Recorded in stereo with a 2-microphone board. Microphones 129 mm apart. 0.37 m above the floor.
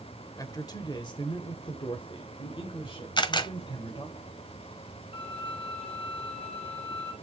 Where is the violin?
50° left (ahead or behind), 2.5 m.